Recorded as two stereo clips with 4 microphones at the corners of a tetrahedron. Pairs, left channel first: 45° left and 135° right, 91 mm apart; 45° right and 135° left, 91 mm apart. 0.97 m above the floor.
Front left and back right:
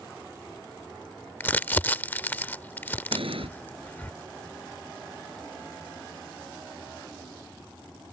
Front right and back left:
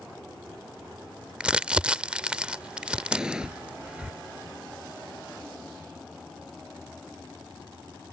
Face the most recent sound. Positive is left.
turn(degrees=-145)